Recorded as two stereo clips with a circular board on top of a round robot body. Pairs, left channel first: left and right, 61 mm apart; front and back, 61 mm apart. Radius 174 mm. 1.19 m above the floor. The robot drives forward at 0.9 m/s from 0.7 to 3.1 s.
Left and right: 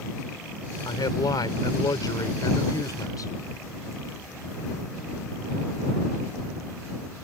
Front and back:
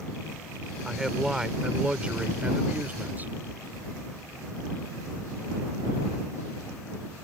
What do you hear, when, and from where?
0.8 s a man speaking: 95° left; by 3.3 s 120° left